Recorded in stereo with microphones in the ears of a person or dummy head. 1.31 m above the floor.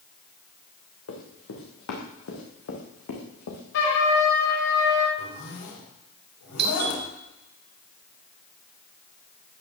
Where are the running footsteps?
75° left (ahead or behind), 5.5 m; by 3.6 s 70° left (ahead or behind), 4.5 m.